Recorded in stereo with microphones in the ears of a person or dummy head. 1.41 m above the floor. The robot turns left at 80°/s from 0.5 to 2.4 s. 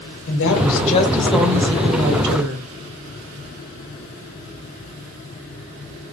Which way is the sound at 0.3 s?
65° left.